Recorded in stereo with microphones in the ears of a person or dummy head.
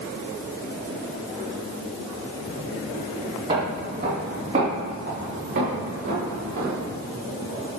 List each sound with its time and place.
3.5 s footsteps: 35° right (ahead or behind), 2 m; by 6.8 s 50° right (ahead or behind), 4 m